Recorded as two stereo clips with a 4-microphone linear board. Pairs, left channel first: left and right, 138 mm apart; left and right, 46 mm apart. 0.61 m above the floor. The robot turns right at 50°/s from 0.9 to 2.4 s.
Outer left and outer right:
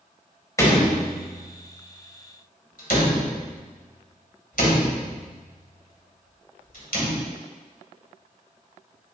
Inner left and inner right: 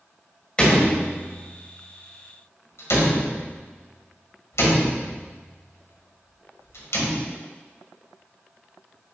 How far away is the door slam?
About 1.9 m.